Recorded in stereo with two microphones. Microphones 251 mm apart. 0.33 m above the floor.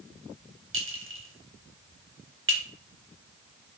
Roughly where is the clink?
Right.